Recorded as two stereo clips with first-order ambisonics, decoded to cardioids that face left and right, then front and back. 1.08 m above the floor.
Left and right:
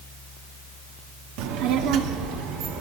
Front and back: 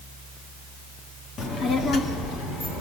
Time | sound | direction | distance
1.4 | a child speaking | 65° right | 1.5 m